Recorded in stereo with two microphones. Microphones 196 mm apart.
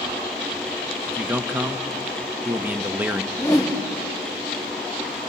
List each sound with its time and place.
1.1 s a man speaking: 10° right (ahead or behind), 0.9 m
3.3 s a whoosh: 20° left (ahead or behind), 2 m